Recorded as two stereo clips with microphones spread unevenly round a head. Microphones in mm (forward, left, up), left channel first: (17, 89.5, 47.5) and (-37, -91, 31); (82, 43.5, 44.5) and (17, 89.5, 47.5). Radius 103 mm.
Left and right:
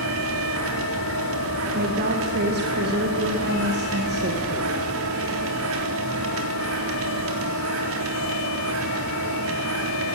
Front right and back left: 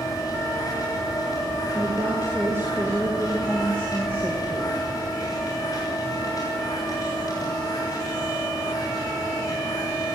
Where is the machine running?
100° right, 3.5 m.